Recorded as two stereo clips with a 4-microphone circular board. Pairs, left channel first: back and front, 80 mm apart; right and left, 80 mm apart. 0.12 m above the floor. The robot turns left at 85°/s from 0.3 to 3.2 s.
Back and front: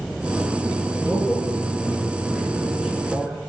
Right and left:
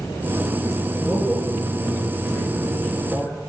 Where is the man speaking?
95° left, 1.8 m; by 3.4 s 95° right, 1.8 m.